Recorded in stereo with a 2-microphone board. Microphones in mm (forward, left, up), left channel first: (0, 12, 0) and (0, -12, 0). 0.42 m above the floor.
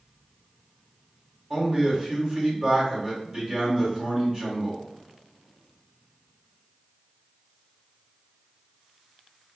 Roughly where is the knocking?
I don't hear knocking.